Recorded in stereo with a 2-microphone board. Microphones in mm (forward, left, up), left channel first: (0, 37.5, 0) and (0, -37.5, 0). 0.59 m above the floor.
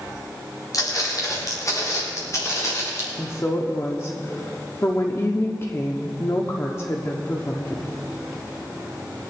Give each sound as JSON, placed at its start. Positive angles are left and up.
{"t": 0.7, "sound": "footsteps", "side_deg": 50, "distance_m": 5.5}
{"t": 3.2, "sound": "a woman speaking", "side_deg": 40, "distance_m": 1.1}